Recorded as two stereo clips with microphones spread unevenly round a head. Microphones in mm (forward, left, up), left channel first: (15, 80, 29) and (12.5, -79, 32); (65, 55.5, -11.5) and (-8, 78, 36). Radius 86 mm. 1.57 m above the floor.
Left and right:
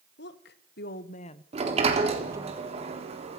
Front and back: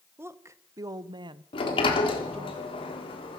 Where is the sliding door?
40° right, 3.5 m.